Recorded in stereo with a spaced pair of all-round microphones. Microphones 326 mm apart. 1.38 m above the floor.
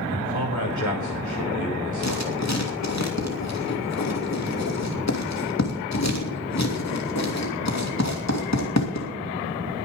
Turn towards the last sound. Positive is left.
turn(degrees=55)  # may be behind; listen again after turning